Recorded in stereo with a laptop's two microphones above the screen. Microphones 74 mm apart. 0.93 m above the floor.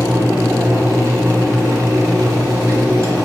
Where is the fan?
45° right (ahead or behind), 1.5 m.